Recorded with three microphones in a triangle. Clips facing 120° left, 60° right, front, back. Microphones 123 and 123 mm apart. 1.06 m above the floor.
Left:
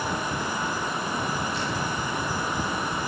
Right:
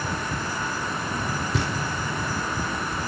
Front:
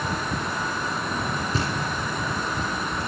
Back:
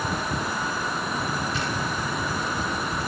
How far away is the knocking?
About 2 m.